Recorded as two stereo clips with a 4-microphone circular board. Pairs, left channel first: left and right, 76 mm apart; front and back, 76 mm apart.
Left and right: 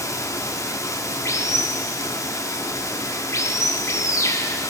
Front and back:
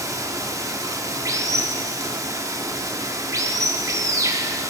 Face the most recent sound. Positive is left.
turn(degrees=140)